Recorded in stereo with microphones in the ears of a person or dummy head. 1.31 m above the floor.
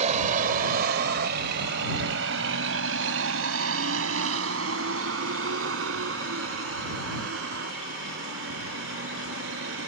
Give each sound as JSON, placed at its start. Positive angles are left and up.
{"t": 0.0, "sound": "a vehicle", "side_deg": -45}